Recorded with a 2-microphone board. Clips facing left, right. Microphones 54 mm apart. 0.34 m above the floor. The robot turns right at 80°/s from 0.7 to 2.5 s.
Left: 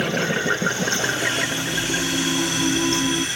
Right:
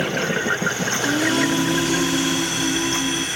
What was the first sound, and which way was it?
Singing, 110° right.